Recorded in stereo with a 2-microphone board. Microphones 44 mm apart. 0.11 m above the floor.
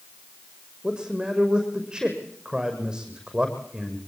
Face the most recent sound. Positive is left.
turn(degrees=-20)  # may be behind; listen again after turning